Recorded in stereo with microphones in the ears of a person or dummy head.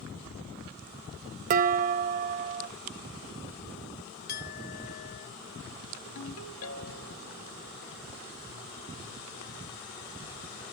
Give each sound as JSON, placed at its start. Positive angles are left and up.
{"t": 1.5, "sound": "dishes clattering", "side_deg": -40, "distance_m": 0.8}
{"t": 4.3, "sound": "a clink", "side_deg": 50, "distance_m": 1.3}
{"t": 6.2, "sound": "a ringtone", "side_deg": 80, "distance_m": 1.4}